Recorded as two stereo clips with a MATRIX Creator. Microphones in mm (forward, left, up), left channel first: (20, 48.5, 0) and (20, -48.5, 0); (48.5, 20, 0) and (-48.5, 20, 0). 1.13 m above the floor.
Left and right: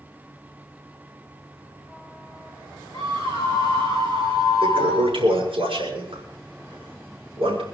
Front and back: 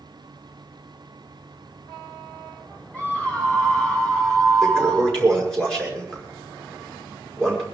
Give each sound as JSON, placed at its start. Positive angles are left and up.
{"t": 2.9, "sound": "a scream", "azimuth_deg": -70, "distance_m": 6.5}
{"t": 4.6, "sound": "a toilet flushing", "azimuth_deg": -80, "distance_m": 5.0}